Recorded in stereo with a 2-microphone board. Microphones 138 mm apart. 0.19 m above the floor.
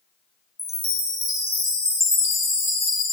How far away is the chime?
About 5 m.